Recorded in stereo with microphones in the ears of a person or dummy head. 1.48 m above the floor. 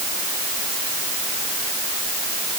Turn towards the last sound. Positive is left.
No sound to turn to.